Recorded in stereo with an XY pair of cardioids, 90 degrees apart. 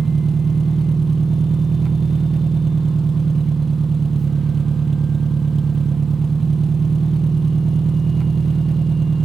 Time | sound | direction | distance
0.0 | an engine running | 45° right | 1.0 m